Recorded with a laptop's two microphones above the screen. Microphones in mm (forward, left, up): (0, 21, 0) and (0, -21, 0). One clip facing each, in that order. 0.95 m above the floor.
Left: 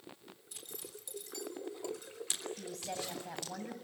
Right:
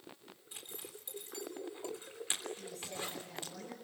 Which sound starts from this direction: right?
A zipper, at 0.5 s.